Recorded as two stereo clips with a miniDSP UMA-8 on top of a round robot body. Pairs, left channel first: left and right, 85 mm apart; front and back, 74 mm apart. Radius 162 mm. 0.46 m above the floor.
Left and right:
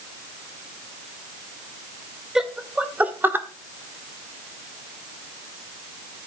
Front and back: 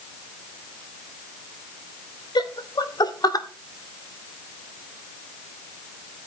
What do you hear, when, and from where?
2.4 s laughter: 5° right, 2 m; by 3.5 s 30° right, 2.0 m